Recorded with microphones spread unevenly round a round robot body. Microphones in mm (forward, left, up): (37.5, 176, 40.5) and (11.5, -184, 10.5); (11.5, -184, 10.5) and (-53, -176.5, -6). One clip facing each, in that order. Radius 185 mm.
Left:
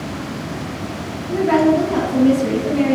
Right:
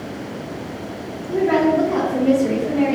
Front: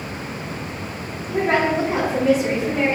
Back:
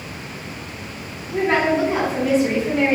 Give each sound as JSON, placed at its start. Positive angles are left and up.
{"t": 1.3, "sound": "a woman speaking", "azimuth_deg": 30, "distance_m": 1.2}